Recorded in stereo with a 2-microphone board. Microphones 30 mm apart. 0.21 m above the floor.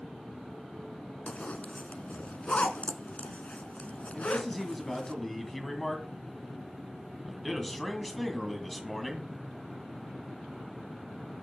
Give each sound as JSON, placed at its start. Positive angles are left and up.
{"t": 1.3, "sound": "a zipper", "side_deg": 55, "distance_m": 0.9}
{"t": 4.1, "sound": "a man speaking", "side_deg": 5, "distance_m": 1.7}